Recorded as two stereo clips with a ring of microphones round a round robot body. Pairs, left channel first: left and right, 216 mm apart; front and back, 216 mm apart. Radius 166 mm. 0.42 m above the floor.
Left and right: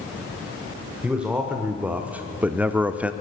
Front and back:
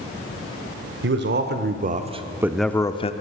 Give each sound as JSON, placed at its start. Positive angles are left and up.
{"t": 1.0, "sound": "a man speaking", "azimuth_deg": -175, "distance_m": 1.7}